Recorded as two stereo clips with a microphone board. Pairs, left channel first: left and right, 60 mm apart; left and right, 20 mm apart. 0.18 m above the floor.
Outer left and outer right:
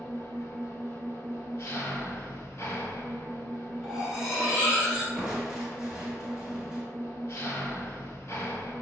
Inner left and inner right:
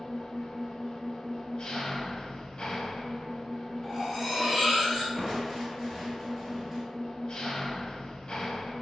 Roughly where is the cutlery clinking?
Centre.